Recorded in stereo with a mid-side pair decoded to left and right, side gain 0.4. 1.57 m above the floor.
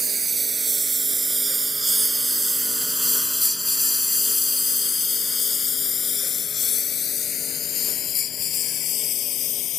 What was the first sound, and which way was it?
A lawn mower, 35° right.